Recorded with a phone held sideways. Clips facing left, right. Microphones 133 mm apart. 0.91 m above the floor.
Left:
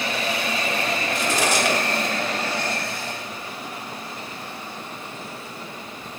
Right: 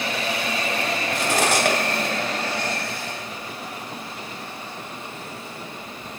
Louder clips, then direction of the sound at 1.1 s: Right 2 dB; 60° right (ahead or behind).